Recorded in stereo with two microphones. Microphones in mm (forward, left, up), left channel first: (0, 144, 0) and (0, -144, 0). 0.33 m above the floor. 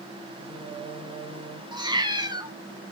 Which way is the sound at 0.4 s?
15° right (ahead or behind).